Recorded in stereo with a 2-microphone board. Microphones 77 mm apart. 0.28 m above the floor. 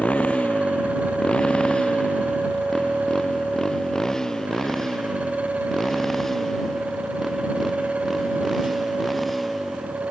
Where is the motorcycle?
15° left (ahead or behind); by 10.1 s centre (ahead or behind).